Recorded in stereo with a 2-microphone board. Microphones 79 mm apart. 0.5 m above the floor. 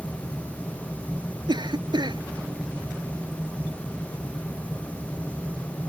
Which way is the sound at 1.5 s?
70° right (ahead or behind).